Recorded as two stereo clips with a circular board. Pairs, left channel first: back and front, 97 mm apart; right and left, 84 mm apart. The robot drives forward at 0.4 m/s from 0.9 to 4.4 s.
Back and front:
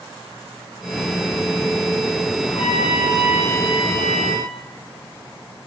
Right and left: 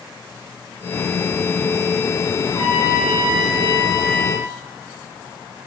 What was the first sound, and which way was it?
A trumpet, 140° right.